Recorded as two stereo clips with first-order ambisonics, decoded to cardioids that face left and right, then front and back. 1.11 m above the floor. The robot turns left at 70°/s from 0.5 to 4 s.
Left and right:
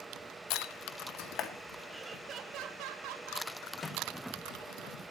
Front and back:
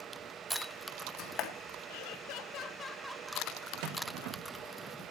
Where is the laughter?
Straight ahead, 1.6 m; by 3.5 s 115° right, 1.6 m.